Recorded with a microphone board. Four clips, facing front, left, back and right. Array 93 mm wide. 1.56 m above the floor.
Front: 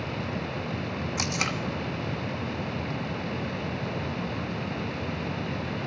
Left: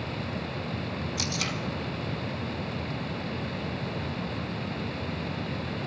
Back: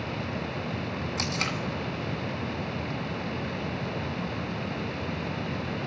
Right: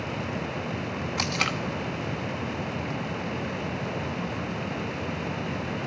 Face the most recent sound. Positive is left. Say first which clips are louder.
# right 8 dB, front 1 dB
turn(degrees=-75)